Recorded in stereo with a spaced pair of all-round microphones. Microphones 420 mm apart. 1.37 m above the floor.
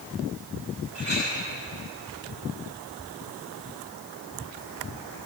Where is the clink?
80° right, 10 m.